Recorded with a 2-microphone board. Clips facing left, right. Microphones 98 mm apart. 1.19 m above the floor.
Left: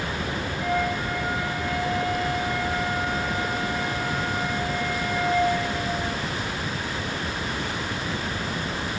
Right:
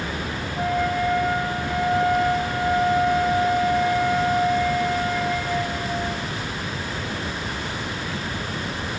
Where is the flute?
85° right, 10 m.